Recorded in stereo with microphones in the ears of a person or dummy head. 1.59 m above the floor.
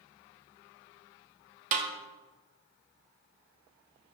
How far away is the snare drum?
About 1.0 m.